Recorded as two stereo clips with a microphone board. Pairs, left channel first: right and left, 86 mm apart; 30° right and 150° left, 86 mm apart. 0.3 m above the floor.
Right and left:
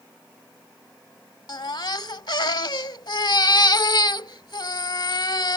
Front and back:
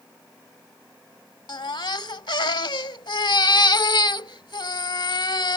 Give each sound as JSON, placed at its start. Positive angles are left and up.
{"t": 1.5, "sound": "a baby crying", "azimuth_deg": -60}